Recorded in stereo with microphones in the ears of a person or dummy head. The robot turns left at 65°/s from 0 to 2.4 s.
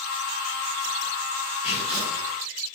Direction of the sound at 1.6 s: 140° left.